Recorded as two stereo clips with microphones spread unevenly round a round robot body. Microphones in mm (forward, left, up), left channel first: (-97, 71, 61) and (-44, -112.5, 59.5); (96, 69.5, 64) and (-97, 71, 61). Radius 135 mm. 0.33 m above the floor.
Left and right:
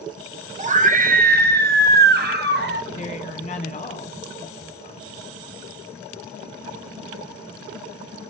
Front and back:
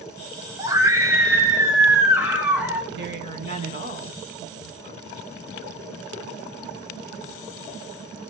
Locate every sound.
0.6 s a scream: 110° right, 1.3 m; by 2.8 s 100° right, 2.5 m
2.9 s a woman speaking: 155° left, 3.5 m